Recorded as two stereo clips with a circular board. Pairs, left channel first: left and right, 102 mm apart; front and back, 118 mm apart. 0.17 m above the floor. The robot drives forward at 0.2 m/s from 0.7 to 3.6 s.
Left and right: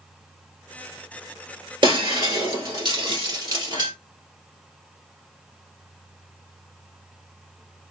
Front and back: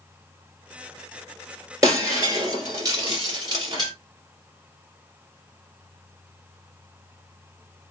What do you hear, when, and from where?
1.8 s breaking glass: 120° right, 2 m; by 3.9 s 130° right, 2 m